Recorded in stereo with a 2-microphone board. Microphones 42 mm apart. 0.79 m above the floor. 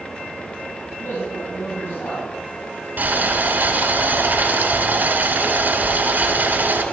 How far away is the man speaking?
About 5 m.